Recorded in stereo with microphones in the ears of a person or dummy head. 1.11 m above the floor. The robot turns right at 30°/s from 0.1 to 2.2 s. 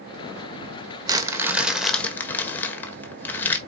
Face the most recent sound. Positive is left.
turn(degrees=10)